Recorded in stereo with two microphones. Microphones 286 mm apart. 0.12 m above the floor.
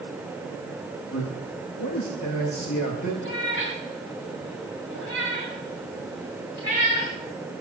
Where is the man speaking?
80° left, 7.5 m; by 3.1 s 70° left (ahead or behind), 7 m.